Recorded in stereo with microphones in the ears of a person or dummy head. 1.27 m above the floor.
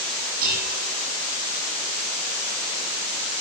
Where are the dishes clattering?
50° right (ahead or behind), 9 m.